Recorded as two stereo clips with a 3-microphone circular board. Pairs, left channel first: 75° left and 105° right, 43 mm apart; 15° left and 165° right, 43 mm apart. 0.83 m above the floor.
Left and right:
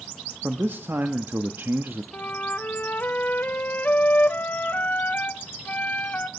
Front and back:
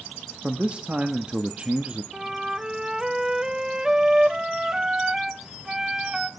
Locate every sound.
0.4 s a man speaking: 110° right, 1.5 m
2.1 s a flute: 120° left, 1.1 m